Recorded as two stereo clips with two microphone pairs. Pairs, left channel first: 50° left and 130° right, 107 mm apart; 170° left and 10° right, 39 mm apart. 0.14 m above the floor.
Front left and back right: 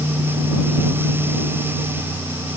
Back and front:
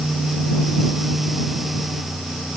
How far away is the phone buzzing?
I don't hear a phone buzzing.